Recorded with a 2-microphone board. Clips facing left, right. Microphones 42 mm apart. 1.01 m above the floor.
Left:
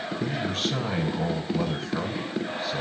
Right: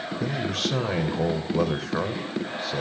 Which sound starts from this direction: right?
A man speaking, at 0.2 s.